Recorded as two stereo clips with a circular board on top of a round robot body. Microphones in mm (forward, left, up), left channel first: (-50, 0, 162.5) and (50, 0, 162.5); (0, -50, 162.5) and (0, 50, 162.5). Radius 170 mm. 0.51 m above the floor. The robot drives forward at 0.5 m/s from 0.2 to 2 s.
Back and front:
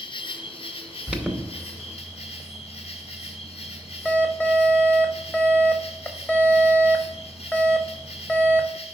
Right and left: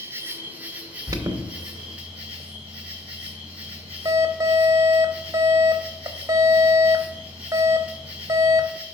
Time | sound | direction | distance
0.0 | an insect | 155° left | 0.8 m
1.1 | an alarm | 70° left | 1.0 m